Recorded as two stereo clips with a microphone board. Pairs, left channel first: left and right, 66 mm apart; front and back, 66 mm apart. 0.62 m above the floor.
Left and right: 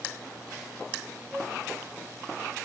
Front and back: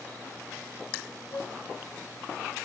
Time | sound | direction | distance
1.3 | a flute | 15° left | 1.5 m